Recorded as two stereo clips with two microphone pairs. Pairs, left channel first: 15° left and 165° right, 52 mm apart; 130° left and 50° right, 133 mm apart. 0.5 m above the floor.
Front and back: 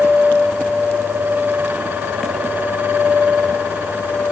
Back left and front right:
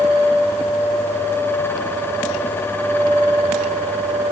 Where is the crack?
I don't hear a crack.